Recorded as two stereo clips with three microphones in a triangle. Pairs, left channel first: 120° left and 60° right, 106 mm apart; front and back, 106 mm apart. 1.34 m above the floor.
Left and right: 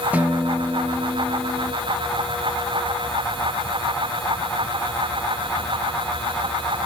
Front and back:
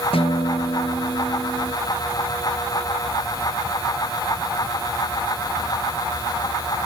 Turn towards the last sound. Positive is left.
turn(degrees=15)